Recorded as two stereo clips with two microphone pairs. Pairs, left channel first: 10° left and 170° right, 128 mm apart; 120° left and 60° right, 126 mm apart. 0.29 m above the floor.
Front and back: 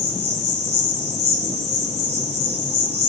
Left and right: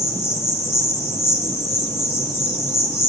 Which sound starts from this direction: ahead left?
An insect, at 0.0 s.